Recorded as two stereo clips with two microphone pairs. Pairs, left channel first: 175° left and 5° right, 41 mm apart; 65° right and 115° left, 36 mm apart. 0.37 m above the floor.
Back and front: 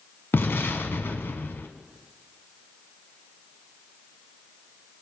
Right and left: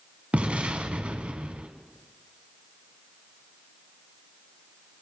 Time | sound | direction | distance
0.3 | an explosion | 160° left | 1.3 m